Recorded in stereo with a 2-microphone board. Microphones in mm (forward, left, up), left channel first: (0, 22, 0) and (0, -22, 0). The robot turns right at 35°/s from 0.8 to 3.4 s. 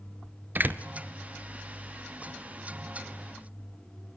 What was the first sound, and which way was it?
A door slam, 45° right (ahead or behind).